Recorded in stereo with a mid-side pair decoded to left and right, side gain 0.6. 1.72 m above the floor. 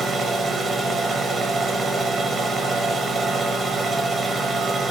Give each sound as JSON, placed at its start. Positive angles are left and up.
{"t": 0.0, "sound": "a machine running", "azimuth_deg": -20, "distance_m": 1.5}